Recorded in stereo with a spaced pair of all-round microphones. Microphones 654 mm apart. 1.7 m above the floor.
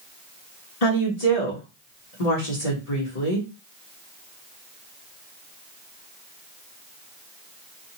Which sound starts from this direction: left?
A woman speaking, at 0.8 s.